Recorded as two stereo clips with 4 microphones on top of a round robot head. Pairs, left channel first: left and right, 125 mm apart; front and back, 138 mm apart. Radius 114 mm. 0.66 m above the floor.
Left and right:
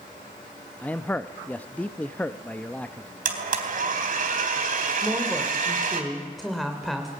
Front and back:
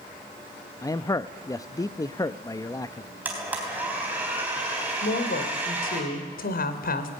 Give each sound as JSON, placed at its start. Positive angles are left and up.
{"t": 0.8, "sound": "a man speaking", "azimuth_deg": 25, "distance_m": 0.7}
{"t": 3.2, "sound": "a blender", "azimuth_deg": -100, "distance_m": 3.5}
{"t": 5.0, "sound": "a woman speaking", "azimuth_deg": 0, "distance_m": 2.5}